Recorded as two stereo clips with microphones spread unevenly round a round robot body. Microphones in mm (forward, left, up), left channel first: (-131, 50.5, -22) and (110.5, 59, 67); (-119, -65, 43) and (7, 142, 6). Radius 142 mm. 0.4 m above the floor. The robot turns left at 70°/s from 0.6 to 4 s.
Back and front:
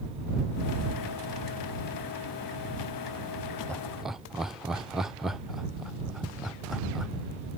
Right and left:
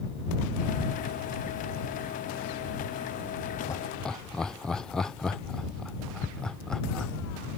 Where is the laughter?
155° left; by 7.1 s 135° left.